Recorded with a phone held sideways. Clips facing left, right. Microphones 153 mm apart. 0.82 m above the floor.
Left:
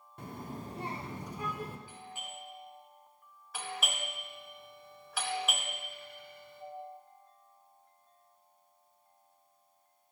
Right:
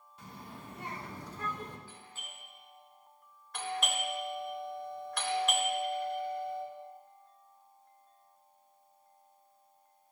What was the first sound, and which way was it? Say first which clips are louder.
A child speaking: left 6 dB; 55° left (ahead or behind).